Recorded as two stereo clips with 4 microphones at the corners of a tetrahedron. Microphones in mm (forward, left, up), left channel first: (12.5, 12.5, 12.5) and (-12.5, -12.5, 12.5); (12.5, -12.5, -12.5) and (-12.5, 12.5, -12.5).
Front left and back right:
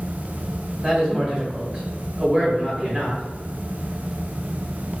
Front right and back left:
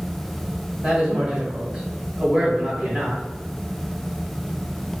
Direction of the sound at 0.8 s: 175° right.